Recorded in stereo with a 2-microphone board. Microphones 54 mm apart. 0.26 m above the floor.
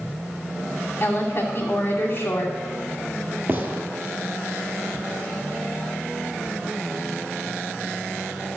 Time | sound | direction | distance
1.0 | a woman speaking | 45° left (ahead or behind) | 2.5 m
3.5 | a gunshot | 35° right (ahead or behind) | 1.7 m